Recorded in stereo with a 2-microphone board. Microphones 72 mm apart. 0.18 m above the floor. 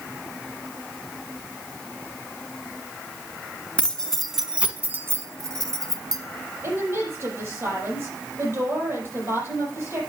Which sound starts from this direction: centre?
Keys jangling, at 3.8 s.